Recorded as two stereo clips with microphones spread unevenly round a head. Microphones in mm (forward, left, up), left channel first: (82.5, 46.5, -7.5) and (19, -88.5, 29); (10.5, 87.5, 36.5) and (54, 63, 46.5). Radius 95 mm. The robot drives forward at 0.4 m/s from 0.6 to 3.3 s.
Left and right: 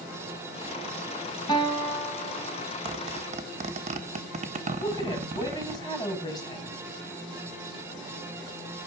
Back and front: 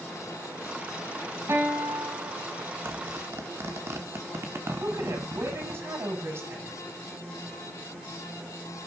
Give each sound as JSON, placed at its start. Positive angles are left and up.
{"t": 1.5, "sound": "a guitar", "azimuth_deg": 0, "distance_m": 7.0}
{"t": 2.9, "sound": "a zipper", "azimuth_deg": -60, "distance_m": 1.5}
{"t": 4.8, "sound": "a woman speaking", "azimuth_deg": 0, "distance_m": 6.0}